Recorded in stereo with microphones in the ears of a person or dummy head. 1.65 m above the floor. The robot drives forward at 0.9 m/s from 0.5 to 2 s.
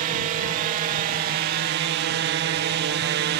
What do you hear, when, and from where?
0.0 s a drone: 50° right (ahead or behind); by 3.4 s 55° right (ahead or behind)